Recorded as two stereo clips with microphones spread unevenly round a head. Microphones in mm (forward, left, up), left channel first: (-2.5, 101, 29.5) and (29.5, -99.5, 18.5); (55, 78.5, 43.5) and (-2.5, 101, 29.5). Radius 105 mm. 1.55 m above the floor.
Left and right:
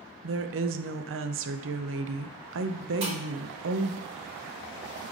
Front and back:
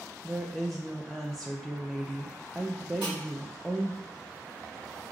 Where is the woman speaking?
110° right, 0.6 m.